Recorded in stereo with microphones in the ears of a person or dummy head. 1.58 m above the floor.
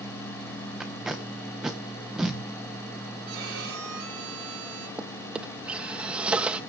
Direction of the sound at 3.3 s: 70° right (ahead or behind).